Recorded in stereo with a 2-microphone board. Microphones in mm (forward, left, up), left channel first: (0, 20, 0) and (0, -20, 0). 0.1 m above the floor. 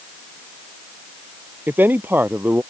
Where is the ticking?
No ticking in this recording.